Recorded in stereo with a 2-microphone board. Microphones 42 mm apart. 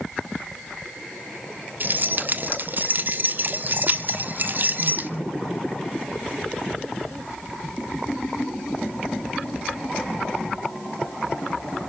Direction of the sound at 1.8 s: 45° right (ahead or behind).